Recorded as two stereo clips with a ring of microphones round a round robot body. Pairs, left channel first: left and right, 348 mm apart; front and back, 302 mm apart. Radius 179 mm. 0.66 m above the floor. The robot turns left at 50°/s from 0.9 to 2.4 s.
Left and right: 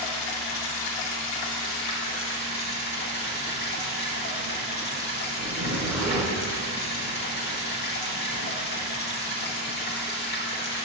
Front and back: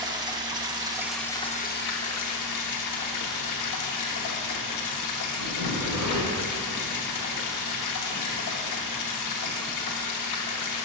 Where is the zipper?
135° right, 1.9 m.